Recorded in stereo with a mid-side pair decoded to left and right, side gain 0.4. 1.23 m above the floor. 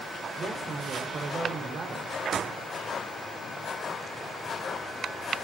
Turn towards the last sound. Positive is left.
turn(degrees=-50)